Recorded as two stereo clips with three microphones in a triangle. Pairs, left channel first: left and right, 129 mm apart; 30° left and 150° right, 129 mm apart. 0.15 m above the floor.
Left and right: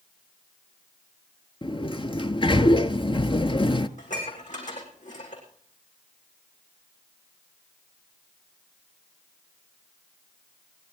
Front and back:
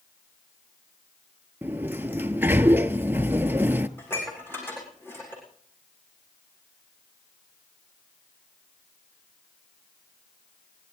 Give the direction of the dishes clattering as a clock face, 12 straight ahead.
9 o'clock.